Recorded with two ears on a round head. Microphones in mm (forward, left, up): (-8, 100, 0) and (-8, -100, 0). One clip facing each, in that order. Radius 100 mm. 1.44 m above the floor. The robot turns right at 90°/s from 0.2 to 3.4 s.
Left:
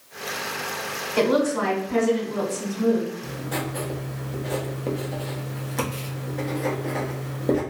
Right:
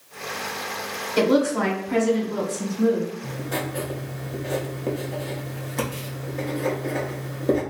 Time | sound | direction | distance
1.2 | a woman speaking | 160° right | 1.5 m
3.2 | writing | 20° left (ahead or behind) | 0.7 m